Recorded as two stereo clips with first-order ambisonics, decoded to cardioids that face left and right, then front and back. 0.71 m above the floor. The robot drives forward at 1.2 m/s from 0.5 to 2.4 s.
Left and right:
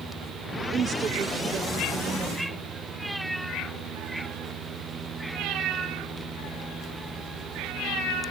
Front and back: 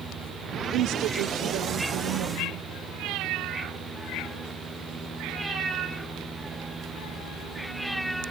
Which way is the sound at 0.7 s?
150° right.